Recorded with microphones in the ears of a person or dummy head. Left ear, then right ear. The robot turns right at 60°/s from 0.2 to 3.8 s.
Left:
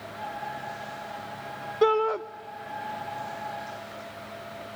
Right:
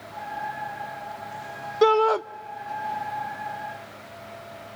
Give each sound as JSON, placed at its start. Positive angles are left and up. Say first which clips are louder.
{"t": 1.8, "sound": "a shout", "louder": "right 4 dB", "side_deg": -15, "distance_m": 0.5}